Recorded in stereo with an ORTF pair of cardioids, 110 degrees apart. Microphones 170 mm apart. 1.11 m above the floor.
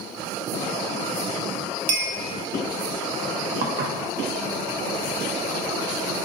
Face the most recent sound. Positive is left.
turn(degrees=-60)